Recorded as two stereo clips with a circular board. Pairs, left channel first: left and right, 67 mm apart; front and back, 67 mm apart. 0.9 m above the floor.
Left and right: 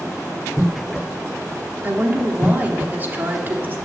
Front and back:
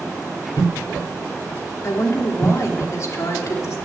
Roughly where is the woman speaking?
Ahead right.